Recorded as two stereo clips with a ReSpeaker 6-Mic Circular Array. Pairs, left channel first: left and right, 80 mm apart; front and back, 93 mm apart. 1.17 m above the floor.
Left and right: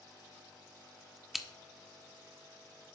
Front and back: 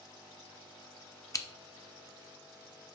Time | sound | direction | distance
1.3 | scissors | 5° right | 0.6 m